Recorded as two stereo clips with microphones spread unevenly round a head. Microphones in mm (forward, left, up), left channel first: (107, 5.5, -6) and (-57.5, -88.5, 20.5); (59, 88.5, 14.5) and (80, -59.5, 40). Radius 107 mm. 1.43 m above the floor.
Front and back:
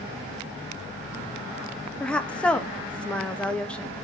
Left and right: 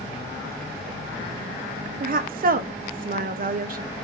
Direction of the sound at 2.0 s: 50° right.